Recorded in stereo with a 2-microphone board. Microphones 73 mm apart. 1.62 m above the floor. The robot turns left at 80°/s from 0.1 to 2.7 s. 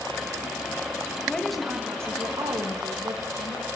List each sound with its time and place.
1.3 s a woman speaking: 25° left, 3 m; by 3.7 s 90° right, 3 m